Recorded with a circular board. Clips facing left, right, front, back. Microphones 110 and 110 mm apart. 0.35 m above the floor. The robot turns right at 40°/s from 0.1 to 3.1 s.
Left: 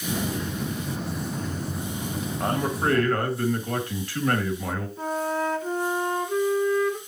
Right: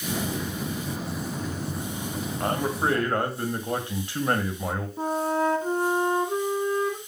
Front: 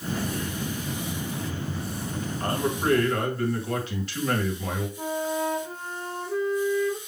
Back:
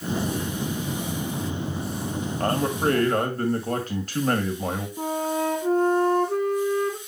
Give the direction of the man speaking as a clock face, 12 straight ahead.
6 o'clock.